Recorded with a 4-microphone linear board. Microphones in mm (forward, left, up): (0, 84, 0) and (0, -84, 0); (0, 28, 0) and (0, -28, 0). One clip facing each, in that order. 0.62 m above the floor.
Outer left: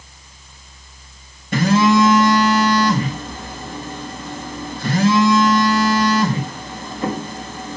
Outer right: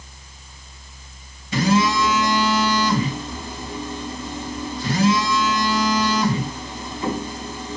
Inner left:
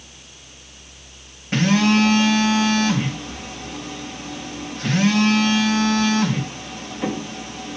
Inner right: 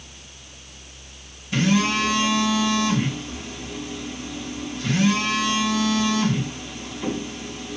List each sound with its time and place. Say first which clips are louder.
1.5 s a phone buzzing: outer left 5 dB, inner left 4 dB; 55° left (ahead or behind), 4 m